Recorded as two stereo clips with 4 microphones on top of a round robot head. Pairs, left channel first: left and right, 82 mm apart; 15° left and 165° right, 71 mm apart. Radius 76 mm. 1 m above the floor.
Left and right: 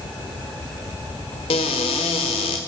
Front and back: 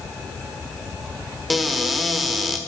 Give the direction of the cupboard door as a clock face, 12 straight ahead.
8 o'clock.